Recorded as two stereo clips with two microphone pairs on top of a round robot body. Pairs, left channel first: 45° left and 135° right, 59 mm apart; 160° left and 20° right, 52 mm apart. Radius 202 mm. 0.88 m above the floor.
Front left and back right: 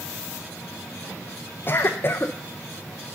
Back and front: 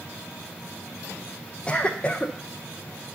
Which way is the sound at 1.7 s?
90° left.